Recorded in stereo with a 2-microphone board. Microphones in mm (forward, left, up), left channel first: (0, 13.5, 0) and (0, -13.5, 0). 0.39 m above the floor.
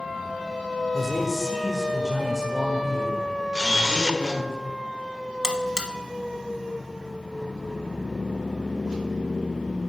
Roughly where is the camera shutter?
Right.